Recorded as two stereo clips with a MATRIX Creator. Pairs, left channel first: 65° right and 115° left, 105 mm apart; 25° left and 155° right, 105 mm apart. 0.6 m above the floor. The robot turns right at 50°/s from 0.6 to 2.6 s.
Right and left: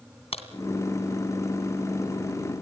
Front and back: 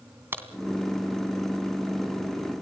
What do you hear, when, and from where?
0.3 s a crack: 90° right, 2 m